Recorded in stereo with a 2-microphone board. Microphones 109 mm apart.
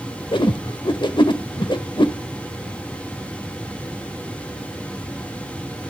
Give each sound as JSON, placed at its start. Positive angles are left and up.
{"t": 0.3, "sound": "a whoosh", "side_deg": 55, "distance_m": 0.9}